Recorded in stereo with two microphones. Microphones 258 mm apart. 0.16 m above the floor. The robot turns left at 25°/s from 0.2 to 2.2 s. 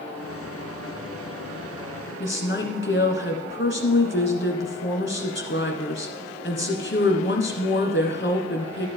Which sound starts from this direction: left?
A woman speaking, at 2.2 s.